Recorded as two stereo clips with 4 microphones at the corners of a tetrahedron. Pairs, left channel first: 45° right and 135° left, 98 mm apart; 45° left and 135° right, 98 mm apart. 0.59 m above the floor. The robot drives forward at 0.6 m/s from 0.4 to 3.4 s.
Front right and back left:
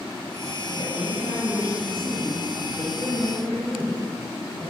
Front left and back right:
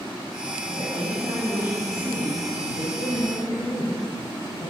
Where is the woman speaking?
85° right, 4 m; by 4.7 s 110° right, 4.5 m.